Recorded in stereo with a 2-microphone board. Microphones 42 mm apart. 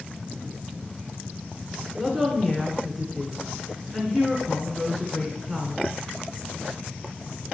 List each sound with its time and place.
2.0 s a woman speaking: 5° right (ahead or behind), 1.2 m